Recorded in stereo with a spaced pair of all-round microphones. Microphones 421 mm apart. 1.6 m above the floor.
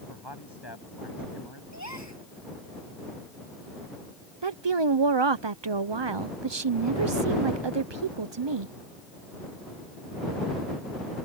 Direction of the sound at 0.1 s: 75° left (ahead or behind).